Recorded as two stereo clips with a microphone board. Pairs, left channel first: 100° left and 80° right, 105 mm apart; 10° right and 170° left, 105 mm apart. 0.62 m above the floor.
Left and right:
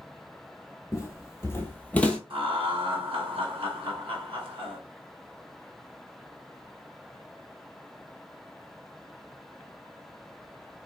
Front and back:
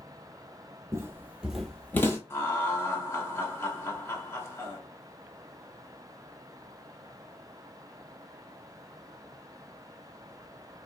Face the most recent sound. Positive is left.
turn(degrees=-75)